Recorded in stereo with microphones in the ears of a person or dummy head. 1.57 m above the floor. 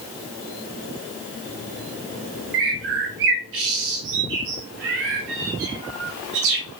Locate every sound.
2.5 s a bird: 55° right (ahead or behind), 0.7 m